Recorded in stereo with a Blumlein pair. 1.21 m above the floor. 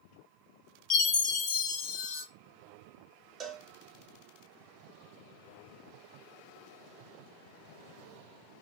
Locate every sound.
0.9 s a chime: 35° left, 1.2 m
3.4 s a cowbell: 20° right, 0.5 m